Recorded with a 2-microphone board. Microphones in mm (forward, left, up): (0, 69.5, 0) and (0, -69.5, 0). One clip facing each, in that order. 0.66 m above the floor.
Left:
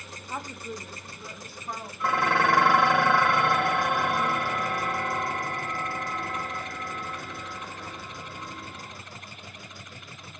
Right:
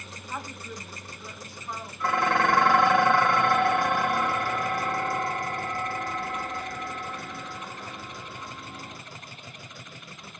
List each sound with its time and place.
0.3 s a woman speaking: 20° left (ahead or behind), 0.9 m; by 1.9 s 30° left (ahead or behind), 1.1 m
2.0 s dishes clattering: centre (ahead or behind), 1.6 m